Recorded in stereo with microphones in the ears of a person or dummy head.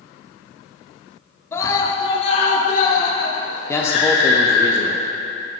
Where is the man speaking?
15° left (ahead or behind), 0.7 m.